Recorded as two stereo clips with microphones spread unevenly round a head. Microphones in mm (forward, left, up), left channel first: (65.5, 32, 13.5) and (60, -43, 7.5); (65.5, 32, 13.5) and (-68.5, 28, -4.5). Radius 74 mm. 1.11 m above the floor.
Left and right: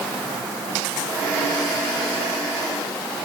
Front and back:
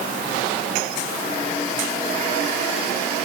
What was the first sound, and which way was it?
Only background noise.